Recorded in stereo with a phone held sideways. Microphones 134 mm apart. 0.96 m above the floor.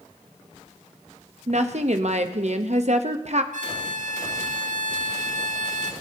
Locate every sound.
1.5 s a woman speaking: 55° right (ahead or behind), 0.9 m
3.5 s a violin: 65° right (ahead or behind), 0.7 m